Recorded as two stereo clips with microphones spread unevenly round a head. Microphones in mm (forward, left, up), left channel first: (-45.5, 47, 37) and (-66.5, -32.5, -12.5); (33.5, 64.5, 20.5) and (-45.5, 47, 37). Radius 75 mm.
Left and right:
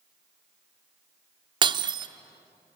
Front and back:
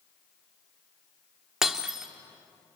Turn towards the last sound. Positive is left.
turn(degrees=-140)